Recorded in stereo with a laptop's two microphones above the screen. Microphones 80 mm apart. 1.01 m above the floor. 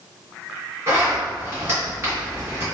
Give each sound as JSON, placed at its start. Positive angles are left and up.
{"t": 0.9, "sound": "a zipper", "side_deg": -35, "distance_m": 1.2}